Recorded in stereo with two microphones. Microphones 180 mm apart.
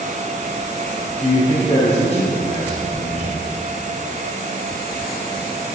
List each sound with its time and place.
1.2 s a man speaking: 35° left (ahead or behind), 3.5 m